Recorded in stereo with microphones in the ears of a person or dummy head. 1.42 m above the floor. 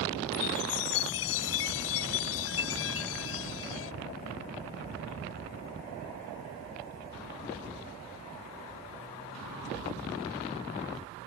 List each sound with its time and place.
0.3 s a chime: 80° left